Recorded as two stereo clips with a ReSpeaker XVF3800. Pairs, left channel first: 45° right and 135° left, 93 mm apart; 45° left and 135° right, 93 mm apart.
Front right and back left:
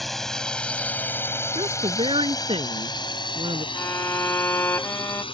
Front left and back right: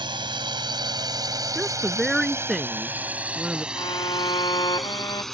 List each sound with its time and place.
0.0 s a drone: 135° right; by 5.3 s 40° right
1.6 s a woman speaking: 135° left
3.8 s a violin: 20° left